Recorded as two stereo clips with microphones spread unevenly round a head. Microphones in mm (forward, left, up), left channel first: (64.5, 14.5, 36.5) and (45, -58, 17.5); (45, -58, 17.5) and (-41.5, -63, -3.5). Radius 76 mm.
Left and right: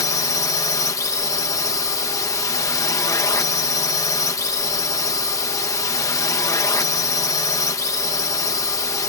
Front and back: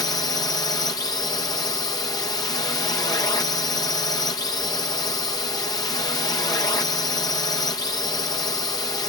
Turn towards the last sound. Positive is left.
turn(degrees=50)